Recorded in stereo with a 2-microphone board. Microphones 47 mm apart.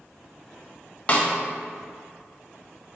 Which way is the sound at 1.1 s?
25° left (ahead or behind).